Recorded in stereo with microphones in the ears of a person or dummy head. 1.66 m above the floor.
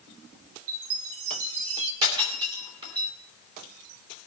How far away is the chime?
About 1.6 m.